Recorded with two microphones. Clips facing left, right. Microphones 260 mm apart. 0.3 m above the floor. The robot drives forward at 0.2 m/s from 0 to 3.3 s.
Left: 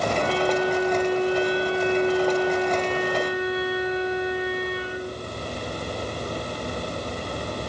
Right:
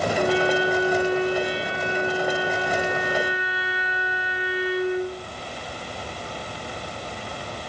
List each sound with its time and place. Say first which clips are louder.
0.2 s a flute: right 2 dB; 15° right (ahead or behind), 7.5 m